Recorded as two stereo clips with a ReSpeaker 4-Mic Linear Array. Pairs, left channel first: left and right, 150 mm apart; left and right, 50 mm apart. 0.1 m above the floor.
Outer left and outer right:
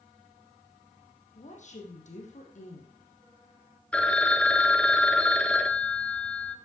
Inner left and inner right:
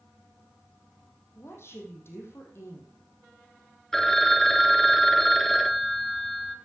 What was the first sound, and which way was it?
A woman speaking, 55° left (ahead or behind).